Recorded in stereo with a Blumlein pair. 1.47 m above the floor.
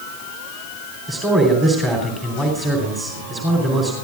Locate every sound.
1.1 s a man speaking: 15° right, 3.5 m